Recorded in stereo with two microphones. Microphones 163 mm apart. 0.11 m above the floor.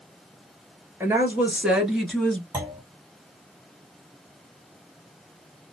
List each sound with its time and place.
1.0 s a woman speaking: 15° right (ahead or behind), 1.5 m; by 2.4 s 5° left (ahead or behind), 1.2 m
2.5 s a clunk: 20° right (ahead or behind), 1.5 m